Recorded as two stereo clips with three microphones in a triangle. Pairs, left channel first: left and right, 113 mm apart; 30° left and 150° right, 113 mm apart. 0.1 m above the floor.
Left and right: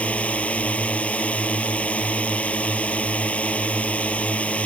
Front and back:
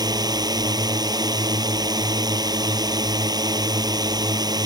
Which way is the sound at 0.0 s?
165° left.